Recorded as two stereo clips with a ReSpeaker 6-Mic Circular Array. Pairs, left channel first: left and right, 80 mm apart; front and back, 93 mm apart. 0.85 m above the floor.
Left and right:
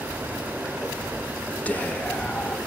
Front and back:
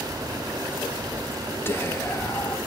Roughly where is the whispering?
Ahead left.